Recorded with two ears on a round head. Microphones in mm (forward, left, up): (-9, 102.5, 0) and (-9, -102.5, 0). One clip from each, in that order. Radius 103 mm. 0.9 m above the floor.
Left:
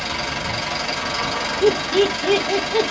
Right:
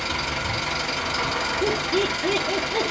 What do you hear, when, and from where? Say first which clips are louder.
0.0 s an engine running: left 2 dB; 10° left (ahead or behind), 1.2 m
1.6 s laughter: left 9 dB; 35° left (ahead or behind), 0.7 m